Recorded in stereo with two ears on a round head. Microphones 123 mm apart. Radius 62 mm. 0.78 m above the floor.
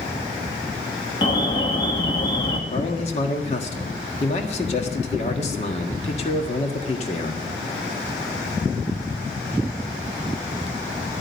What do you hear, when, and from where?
1.2 s an alarm: 35° left (ahead or behind), 2 m
2.7 s a man speaking: 50° left (ahead or behind), 1.6 m